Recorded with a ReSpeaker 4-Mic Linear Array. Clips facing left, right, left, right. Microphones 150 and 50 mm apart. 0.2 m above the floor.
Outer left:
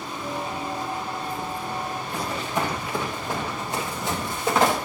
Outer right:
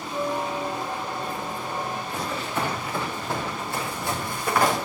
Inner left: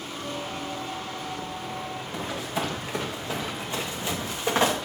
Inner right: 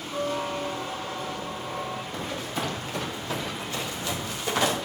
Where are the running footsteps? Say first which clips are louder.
Outer left 3 dB, inner left 4 dB; 15° left (ahead or behind), 7 m; by 4.8 s 25° left (ahead or behind), 4 m.